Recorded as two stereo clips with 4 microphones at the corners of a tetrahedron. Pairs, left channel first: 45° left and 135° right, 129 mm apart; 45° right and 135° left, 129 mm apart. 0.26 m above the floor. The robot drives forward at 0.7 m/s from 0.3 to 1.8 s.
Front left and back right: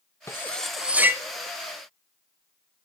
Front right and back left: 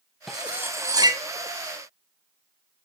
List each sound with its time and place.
0.3 s cutlery clinking: 50° left, 0.6 m; by 1.2 s 165° left, 0.8 m